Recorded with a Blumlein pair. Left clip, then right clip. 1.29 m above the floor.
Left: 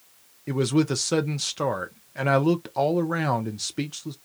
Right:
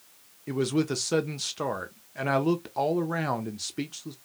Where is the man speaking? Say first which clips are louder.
Left 4 dB; 10° left, 0.6 m.